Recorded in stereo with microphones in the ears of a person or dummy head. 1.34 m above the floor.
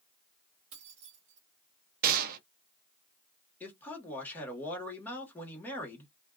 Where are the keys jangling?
40° right (ahead or behind), 1.2 m.